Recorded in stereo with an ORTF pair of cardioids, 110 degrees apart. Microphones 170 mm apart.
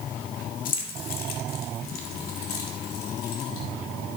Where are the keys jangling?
55° left, 1.9 m; by 3.6 s 70° left, 4 m.